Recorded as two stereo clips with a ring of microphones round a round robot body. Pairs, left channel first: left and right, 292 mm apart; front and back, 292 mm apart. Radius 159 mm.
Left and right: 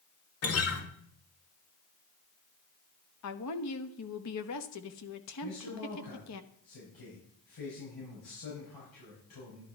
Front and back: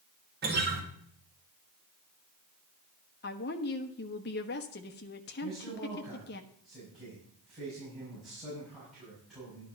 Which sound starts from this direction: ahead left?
A woman speaking, at 3.2 s.